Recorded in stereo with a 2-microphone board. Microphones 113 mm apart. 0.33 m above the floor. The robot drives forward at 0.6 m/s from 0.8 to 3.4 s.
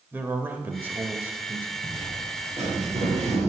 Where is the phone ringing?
No phone ringing in this recording.